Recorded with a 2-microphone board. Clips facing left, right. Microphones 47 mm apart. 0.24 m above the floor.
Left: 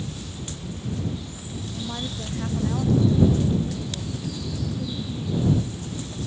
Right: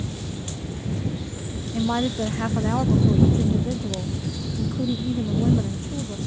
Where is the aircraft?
35° right (ahead or behind); by 6.3 s 25° right (ahead or behind).